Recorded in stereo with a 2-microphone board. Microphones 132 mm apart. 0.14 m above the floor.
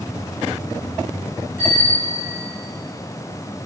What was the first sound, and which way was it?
A bicycle bell, 85° left.